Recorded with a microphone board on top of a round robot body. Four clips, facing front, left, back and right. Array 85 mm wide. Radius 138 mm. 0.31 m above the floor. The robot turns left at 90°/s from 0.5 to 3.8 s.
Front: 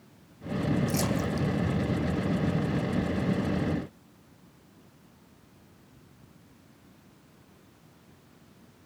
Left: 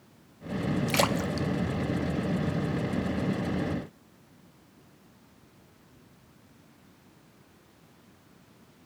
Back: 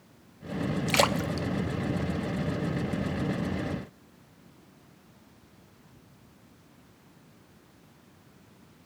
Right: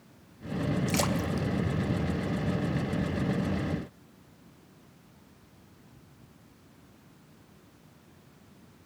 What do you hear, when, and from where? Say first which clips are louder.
0.9 s a splash: left 2 dB, back 3 dB; 165° left, 1.1 m; by 2.8 s straight ahead, 1.1 m